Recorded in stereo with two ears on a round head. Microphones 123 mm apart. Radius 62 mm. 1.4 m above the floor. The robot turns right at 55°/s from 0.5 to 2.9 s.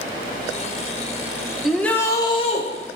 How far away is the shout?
About 1.5 m.